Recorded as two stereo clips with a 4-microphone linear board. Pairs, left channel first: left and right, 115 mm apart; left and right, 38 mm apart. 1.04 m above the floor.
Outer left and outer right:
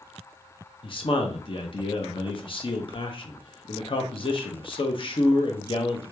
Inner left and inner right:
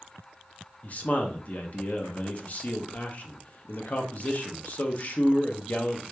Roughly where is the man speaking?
Left.